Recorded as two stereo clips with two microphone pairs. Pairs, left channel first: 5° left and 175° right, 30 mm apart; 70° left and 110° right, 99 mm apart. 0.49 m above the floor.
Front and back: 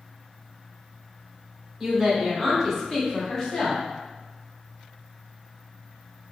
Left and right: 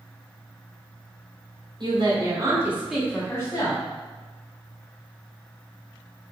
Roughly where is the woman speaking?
Right.